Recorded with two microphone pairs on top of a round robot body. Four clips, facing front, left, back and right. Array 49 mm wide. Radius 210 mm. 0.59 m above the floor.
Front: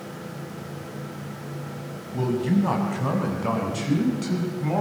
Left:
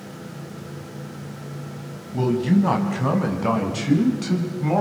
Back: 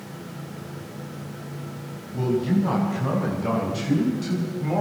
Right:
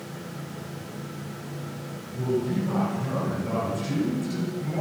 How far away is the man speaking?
About 6 m.